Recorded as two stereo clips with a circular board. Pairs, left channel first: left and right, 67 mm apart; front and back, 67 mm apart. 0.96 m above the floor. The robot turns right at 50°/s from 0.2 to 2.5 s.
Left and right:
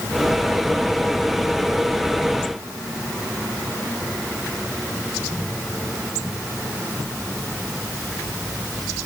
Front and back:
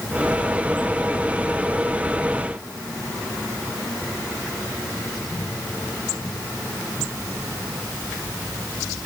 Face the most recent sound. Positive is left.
No sound to turn to.